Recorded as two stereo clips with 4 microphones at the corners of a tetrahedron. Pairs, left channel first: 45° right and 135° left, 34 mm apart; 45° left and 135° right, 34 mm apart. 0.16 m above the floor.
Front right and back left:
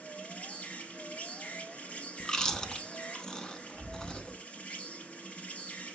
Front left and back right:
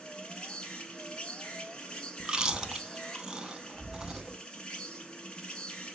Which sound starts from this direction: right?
Chewing, at 2.2 s.